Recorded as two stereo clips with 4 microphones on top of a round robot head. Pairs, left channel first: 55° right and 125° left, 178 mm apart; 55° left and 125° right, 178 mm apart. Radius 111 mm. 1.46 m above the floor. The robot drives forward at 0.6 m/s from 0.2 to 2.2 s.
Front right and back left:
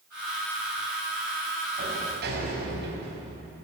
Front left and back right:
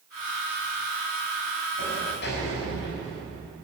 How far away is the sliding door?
About 5 m.